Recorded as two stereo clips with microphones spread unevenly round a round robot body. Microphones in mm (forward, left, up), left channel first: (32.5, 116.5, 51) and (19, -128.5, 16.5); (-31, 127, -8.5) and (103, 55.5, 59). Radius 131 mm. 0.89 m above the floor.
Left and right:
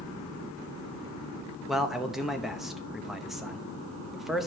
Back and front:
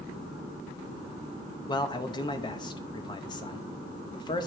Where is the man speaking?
175° right, 0.8 m.